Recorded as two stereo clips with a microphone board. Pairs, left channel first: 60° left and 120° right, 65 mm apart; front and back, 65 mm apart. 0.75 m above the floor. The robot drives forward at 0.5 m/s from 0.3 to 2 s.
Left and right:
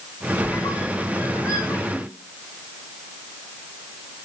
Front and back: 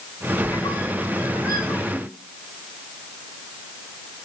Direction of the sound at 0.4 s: 25° left.